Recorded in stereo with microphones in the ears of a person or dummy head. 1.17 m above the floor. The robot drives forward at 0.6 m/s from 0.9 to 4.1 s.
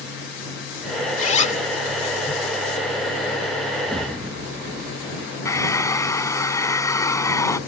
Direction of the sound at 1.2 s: 45° left (ahead or behind).